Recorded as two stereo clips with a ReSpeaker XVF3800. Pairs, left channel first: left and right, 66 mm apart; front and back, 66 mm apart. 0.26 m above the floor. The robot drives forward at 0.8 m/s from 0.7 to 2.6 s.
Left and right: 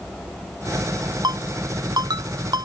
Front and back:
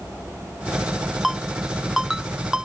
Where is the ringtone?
90° right; by 2.7 s 100° right.